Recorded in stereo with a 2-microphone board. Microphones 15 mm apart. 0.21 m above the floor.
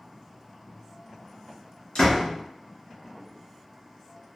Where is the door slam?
45° left (ahead or behind), 1.8 m.